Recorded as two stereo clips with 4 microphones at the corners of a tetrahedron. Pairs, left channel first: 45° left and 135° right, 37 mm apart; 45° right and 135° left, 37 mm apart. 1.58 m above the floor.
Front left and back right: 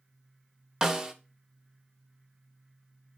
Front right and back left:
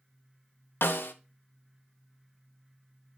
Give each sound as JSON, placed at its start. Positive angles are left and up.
{"t": 0.8, "sound": "a snare drum", "azimuth_deg": -60, "distance_m": 0.8}